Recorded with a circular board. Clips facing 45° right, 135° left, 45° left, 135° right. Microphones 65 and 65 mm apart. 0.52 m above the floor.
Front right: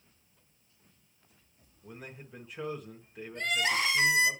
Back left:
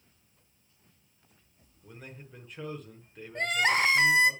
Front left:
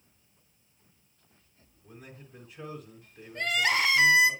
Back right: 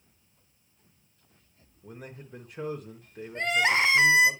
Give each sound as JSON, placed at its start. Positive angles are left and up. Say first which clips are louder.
{"t": 1.8, "sound": "a man speaking", "louder": "front right 1 dB, back right 5 dB", "azimuth_deg": -130, "distance_m": 1.4}
{"t": 3.4, "sound": "crying", "louder": "back left 4 dB, back right 2 dB", "azimuth_deg": 165, "distance_m": 1.1}